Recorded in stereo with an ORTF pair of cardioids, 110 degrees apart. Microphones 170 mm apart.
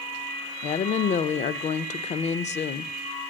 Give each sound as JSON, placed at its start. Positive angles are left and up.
{"t": 0.6, "sound": "a woman speaking", "azimuth_deg": 50, "distance_m": 0.6}